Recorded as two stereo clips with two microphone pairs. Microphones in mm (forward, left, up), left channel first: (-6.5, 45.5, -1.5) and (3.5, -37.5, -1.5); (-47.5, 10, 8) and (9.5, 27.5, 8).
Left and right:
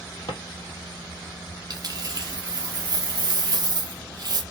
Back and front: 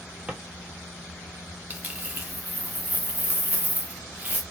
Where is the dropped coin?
45° right, 0.8 m.